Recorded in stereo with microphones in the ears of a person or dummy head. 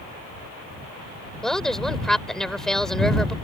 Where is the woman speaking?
Centre (ahead or behind).